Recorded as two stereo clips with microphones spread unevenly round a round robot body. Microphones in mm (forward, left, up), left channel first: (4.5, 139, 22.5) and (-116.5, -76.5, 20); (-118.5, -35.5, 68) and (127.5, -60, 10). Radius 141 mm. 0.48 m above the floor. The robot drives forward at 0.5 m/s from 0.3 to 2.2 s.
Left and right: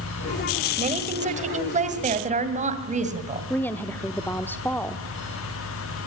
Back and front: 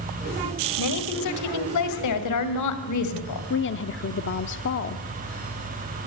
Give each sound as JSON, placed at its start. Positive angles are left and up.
{"t": 0.8, "sound": "a woman speaking", "azimuth_deg": 180, "distance_m": 2.0}
{"t": 3.5, "sound": "a woman speaking", "azimuth_deg": 140, "distance_m": 0.9}